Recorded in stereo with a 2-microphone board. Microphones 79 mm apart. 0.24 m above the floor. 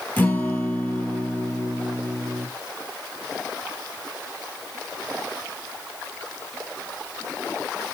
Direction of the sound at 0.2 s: 25° left (ahead or behind).